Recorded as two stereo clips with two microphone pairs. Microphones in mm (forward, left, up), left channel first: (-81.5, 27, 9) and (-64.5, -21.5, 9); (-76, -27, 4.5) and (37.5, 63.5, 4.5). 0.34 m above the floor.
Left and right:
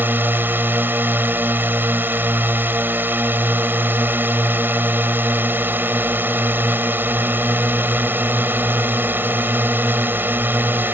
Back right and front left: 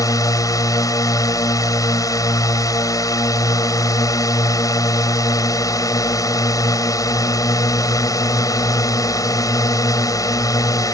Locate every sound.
0.0 s a drone: 90° right